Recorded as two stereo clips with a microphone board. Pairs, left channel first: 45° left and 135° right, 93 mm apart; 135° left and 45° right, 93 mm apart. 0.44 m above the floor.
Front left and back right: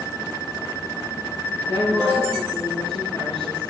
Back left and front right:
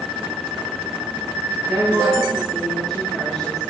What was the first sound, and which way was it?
A woman speaking, 50° left.